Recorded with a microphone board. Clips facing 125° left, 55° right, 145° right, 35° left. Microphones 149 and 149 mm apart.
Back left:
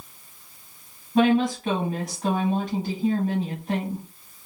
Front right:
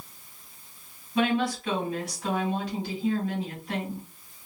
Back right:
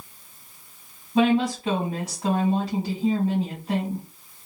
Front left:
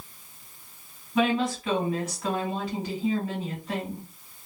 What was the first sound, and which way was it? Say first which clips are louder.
A woman speaking: back left 6 dB, back right 4 dB; 165° left.